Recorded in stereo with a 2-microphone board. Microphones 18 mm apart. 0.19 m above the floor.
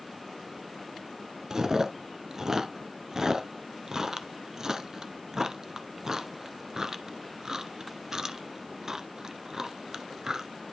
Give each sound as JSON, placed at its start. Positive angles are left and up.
{"t": 1.5, "sound": "chewing", "side_deg": -35, "distance_m": 0.9}